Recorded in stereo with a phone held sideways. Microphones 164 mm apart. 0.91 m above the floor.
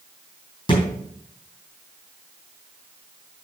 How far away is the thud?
About 3 m.